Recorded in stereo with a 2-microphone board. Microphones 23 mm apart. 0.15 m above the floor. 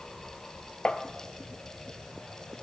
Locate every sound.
0.8 s tapping: 50° left (ahead or behind), 0.9 m